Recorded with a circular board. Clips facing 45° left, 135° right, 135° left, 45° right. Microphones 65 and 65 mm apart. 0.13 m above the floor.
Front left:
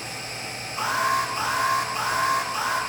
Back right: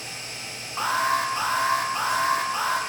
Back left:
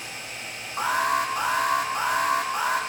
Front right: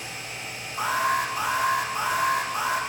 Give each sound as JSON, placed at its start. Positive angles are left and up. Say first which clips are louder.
{"t": 0.8, "sound": "an alarm", "louder": "even, back left 1 dB", "azimuth_deg": 170, "distance_m": 5.5}